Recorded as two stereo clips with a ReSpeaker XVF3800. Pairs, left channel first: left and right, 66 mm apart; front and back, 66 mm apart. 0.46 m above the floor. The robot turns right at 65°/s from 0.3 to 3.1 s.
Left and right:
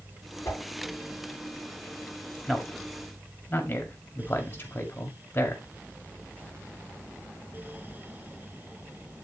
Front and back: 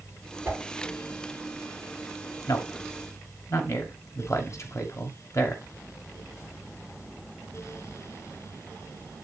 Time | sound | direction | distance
0.5 | a whoosh | 125° left | 3 m
2.5 | a man speaking | 5° right | 2 m